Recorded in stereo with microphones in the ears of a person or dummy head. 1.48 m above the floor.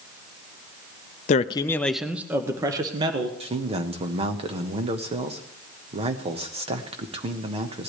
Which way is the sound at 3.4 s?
35° right (ahead or behind).